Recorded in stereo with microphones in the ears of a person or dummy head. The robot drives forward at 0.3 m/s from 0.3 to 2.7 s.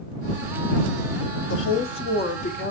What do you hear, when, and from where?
1.5 s a woman speaking: 65° left (ahead or behind), 0.9 m; by 2.7 s 50° left (ahead or behind), 1.1 m